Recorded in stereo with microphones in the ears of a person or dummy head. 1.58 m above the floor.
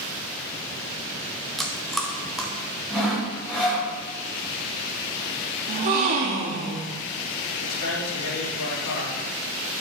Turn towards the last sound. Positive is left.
turn(degrees=80)